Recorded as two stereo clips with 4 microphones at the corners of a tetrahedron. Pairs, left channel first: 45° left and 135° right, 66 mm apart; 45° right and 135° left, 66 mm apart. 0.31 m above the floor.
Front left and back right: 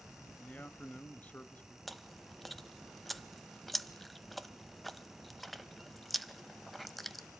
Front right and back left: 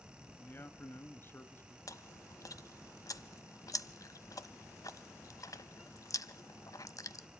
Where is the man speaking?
10° right, 1.4 m.